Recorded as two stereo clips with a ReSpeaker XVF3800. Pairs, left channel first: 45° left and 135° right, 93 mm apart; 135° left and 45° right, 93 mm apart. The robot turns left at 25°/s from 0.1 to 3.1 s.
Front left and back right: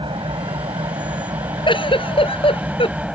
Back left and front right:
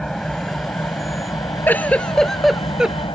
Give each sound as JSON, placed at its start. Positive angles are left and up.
{"t": 0.0, "sound": "an engine running", "azimuth_deg": -140}
{"t": 1.7, "sound": "a giggle", "azimuth_deg": 65}